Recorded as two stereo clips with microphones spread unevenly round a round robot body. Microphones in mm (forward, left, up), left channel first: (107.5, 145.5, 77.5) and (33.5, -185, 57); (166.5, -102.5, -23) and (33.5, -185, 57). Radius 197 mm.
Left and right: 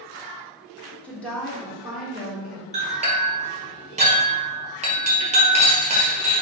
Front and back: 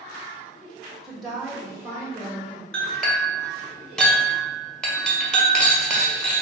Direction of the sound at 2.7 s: 35° right.